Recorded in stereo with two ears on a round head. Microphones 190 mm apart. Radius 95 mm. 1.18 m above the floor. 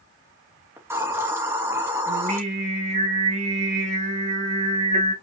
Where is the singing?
35° right (ahead or behind), 2.5 m.